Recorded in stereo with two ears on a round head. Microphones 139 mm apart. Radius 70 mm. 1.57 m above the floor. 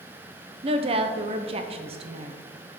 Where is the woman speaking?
35° right (ahead or behind), 1.0 m.